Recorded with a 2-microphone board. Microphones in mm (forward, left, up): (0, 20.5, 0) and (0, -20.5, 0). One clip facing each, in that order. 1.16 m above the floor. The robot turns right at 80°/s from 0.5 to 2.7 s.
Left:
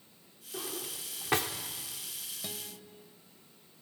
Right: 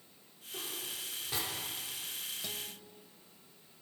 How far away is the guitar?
About 1.9 m.